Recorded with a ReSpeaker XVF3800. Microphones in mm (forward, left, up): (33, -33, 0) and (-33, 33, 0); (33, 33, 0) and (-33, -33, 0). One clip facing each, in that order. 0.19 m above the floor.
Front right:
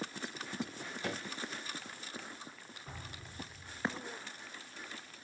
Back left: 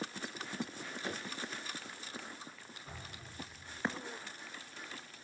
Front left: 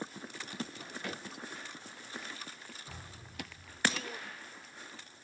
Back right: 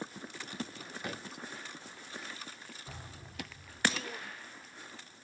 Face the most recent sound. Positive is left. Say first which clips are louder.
# front right 2 dB, back right 1 dB
turn(degrees=-95)